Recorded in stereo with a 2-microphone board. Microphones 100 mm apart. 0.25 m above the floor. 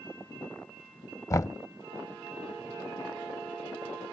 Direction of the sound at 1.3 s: 35° left (ahead or behind).